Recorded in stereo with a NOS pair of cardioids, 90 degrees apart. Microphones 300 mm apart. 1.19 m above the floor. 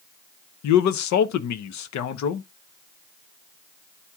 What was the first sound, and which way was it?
A man speaking, 70° left.